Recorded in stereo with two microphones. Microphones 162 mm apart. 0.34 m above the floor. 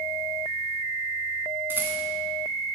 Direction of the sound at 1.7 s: 15° right (ahead or behind).